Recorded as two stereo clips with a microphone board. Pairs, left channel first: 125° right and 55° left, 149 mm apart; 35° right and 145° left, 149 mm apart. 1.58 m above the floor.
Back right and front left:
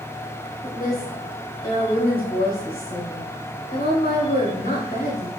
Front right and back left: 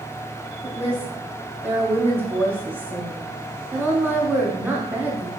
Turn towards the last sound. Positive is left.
turn(degrees=-135)